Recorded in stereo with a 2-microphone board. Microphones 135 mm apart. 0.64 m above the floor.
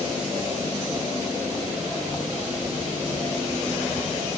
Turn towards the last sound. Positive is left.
No sound to turn to.